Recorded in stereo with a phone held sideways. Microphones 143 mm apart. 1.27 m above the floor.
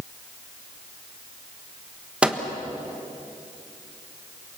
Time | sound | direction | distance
2.2 | a microwave | 10° right (ahead or behind) | 1.3 m